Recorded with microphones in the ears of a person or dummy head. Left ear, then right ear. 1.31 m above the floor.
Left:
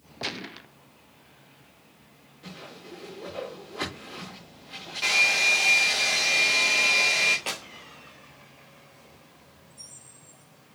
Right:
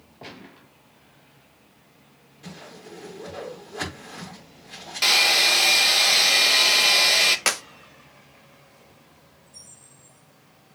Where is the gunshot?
45° left (ahead or behind), 0.7 m.